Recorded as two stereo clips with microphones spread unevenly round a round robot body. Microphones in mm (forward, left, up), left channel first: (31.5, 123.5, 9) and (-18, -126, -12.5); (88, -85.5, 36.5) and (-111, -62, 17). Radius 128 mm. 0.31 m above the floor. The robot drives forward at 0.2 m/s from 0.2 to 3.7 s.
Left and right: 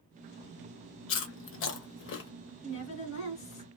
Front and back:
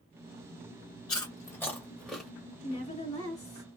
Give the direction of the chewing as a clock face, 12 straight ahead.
10 o'clock.